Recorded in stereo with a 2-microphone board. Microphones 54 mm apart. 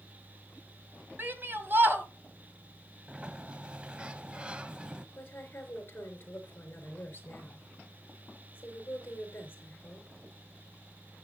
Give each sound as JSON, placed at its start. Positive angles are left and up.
{"t": 1.2, "sound": "a shout", "side_deg": -40, "distance_m": 1.7}
{"t": 3.1, "sound": "a sliding door", "side_deg": -20, "distance_m": 0.6}
{"t": 5.2, "sound": "a woman speaking", "side_deg": 35, "distance_m": 4.0}